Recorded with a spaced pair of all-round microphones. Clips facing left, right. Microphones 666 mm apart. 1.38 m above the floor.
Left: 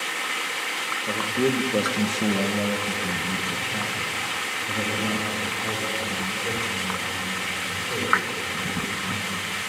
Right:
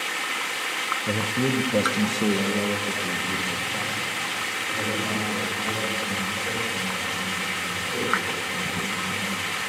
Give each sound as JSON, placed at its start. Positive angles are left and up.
{"t": 1.1, "sound": "a man speaking", "side_deg": -50, "distance_m": 1.1}